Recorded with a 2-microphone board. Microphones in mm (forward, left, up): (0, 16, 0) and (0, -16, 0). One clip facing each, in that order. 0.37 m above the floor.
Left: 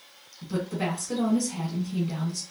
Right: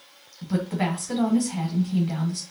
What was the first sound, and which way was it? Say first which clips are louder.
A woman speaking: right 3 dB; 45° right (ahead or behind).